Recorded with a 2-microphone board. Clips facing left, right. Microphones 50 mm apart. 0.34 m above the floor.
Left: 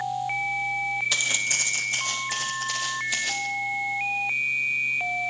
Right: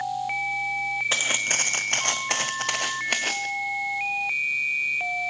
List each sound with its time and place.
1.1 s footsteps: 35° right (ahead or behind), 1.5 m; by 3.5 s 50° right (ahead or behind), 1.8 m